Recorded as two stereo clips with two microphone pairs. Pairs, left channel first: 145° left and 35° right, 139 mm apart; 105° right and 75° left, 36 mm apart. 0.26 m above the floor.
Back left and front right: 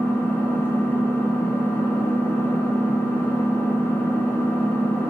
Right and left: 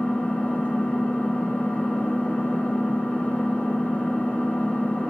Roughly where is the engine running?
Behind right.